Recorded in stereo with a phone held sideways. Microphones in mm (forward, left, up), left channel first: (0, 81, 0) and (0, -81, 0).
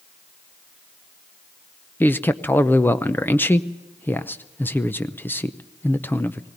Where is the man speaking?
10° left (ahead or behind), 0.7 m.